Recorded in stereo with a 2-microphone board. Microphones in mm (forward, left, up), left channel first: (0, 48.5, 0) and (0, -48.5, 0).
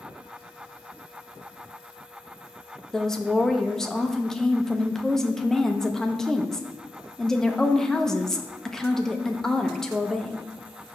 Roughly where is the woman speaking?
Centre.